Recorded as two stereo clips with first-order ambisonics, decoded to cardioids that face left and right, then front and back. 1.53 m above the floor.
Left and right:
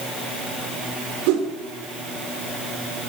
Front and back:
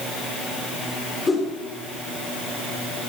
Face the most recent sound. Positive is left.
turn(degrees=-75)